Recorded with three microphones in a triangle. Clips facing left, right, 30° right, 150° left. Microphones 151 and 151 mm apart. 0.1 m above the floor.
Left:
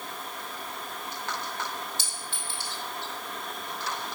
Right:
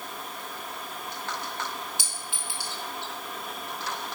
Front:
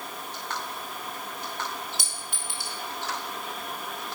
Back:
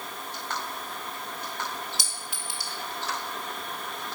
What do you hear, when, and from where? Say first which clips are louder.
2.0 s a clink: even, even; 15° right, 1.7 m